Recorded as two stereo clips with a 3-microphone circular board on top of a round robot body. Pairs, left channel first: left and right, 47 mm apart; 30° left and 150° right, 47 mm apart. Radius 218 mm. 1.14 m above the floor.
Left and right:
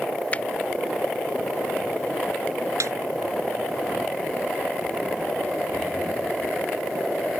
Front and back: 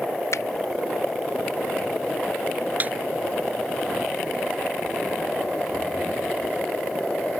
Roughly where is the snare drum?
Right.